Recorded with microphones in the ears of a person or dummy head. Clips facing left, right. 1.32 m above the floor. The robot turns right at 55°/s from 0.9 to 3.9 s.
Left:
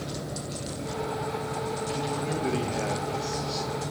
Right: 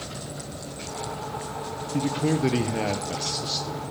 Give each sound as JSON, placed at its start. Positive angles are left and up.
{"t": 1.9, "sound": "a man speaking", "azimuth_deg": -115, "distance_m": 0.7}